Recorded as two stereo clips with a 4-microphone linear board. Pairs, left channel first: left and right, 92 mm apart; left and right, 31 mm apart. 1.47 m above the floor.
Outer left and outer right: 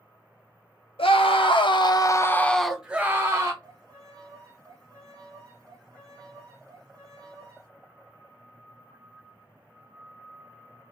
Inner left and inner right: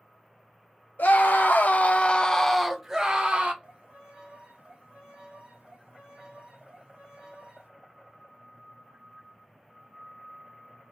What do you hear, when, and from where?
1.0 s a scream: 75° left (ahead or behind), 0.9 m; by 3.5 s 30° right (ahead or behind), 0.9 m
3.6 s a violin: 35° right (ahead or behind), 1.5 m